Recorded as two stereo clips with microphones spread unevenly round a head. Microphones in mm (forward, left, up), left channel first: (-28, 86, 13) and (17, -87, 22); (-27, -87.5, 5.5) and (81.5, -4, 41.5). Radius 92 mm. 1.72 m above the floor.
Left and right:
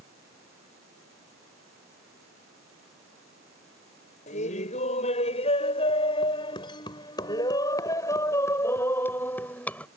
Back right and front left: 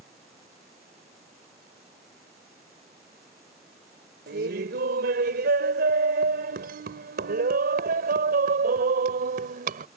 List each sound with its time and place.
4.3 s laughter: 50° left; by 9.9 s 20° left